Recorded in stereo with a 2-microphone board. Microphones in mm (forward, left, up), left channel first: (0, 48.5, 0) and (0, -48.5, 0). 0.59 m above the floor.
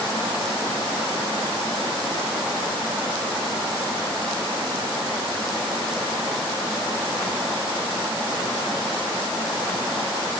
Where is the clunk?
I don't hear a clunk.